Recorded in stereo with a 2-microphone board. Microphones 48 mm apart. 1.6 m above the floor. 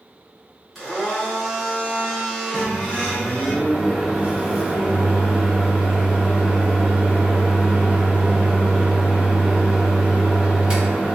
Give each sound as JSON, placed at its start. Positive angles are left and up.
{"t": 0.8, "sound": "a blender", "side_deg": 0, "distance_m": 1.3}
{"t": 2.5, "sound": "a microwave", "side_deg": -20, "distance_m": 0.5}